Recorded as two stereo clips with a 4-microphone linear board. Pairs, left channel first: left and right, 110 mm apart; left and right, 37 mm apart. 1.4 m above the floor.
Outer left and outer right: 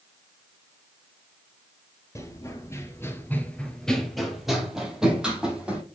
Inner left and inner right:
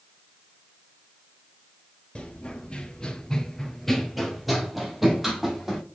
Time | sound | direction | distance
2.1 | running footsteps | 25° left (ahead or behind) | 1.9 m